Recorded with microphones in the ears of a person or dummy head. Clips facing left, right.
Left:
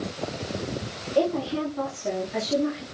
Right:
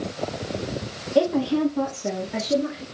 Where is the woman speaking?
85° right, 1.5 m; by 2.8 s 40° right (ahead or behind), 2.5 m.